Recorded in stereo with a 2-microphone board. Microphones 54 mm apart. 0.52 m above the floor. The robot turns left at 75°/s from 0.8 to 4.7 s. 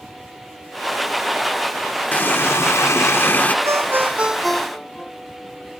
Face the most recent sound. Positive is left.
turn(degrees=165)